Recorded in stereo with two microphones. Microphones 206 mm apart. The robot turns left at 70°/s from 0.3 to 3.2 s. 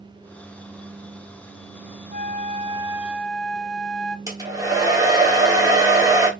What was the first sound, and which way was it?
A flute, 105° right.